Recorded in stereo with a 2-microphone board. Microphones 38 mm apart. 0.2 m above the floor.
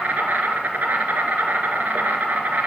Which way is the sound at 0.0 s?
60° right (ahead or behind).